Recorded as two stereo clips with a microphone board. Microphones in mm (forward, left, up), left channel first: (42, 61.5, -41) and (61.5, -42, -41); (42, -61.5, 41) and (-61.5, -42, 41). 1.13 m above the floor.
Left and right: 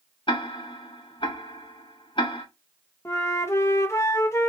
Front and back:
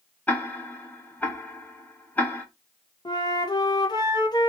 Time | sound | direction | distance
0.3 | ticking | 60° left | 1.0 m
3.0 | a flute | 35° left | 0.9 m